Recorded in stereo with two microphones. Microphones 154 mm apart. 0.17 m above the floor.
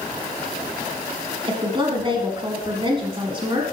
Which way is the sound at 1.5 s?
35° right (ahead or behind).